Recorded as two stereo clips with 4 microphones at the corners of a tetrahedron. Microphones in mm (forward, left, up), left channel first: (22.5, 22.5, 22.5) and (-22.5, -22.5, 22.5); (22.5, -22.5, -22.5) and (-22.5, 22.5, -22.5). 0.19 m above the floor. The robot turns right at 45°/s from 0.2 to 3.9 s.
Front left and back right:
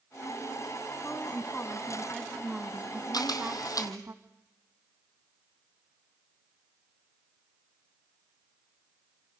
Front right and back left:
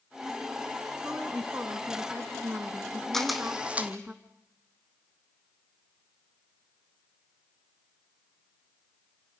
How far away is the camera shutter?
About 1.9 m.